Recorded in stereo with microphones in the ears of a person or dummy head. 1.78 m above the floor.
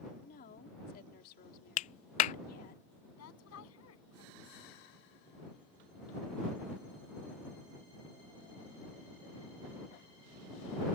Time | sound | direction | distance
0.2 | a woman speaking | 55° left (ahead or behind) | ?
1.8 | a clap | 40° left (ahead or behind) | ?
3.2 | a woman speaking | 85° left | ?